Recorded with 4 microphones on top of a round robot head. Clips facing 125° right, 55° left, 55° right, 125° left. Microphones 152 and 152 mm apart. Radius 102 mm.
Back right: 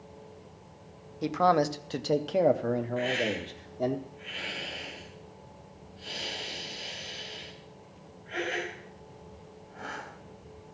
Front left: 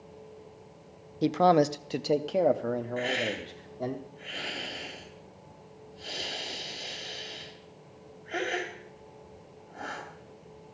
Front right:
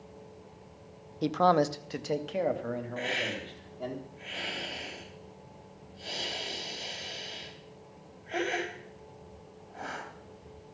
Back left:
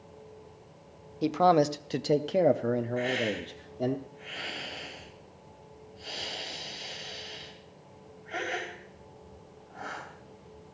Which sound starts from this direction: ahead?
A hiss, at 3.0 s.